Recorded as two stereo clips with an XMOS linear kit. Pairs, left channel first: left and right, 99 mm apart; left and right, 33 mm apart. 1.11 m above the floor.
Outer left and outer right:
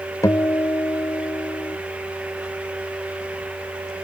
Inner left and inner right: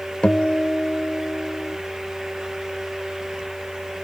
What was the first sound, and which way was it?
A guitar, 35° left (ahead or behind).